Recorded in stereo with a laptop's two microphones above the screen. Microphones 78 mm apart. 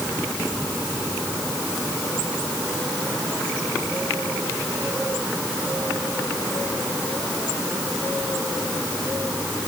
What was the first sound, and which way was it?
Only background noise.